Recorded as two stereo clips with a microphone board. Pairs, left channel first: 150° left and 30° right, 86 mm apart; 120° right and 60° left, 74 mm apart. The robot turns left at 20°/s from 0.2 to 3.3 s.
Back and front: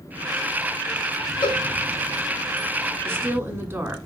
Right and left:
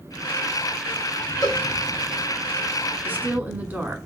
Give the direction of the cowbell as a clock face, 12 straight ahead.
6 o'clock.